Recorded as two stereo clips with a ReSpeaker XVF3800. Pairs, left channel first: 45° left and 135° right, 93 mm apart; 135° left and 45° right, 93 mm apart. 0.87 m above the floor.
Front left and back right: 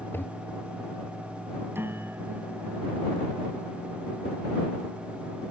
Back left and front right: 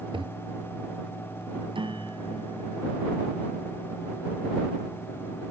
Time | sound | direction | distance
0.1 | a toilet flushing | 20° right | ?
1.8 | a piano | 70° right | ?